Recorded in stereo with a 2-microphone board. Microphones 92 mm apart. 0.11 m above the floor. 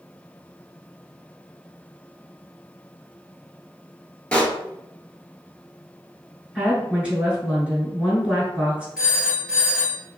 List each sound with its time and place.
4.3 s a pop: 15° left (ahead or behind), 0.6 m
6.5 s a woman speaking: 15° right (ahead or behind), 1.2 m
9.0 s a phone ringing: 10° right (ahead or behind), 1.6 m